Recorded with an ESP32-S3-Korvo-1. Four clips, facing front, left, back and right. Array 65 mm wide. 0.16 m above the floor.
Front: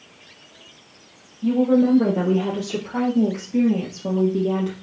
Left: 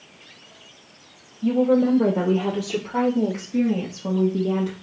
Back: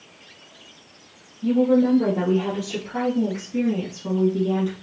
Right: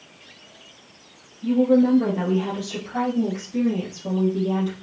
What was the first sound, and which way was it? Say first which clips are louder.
A woman speaking: right 1 dB, front 1 dB; 65° left.